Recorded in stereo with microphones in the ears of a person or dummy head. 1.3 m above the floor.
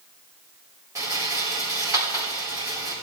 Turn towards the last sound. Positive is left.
turn(degrees=-15)  # may be behind; listen again after turning